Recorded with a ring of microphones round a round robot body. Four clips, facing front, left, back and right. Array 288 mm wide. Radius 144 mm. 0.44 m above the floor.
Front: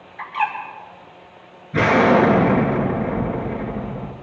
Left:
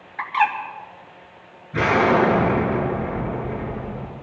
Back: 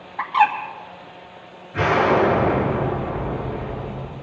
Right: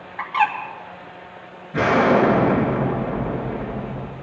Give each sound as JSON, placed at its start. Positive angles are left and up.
{"t": 0.2, "sound": "a bird", "azimuth_deg": 155, "distance_m": 2.5}
{"t": 1.7, "sound": "an explosion", "azimuth_deg": 0, "distance_m": 5.5}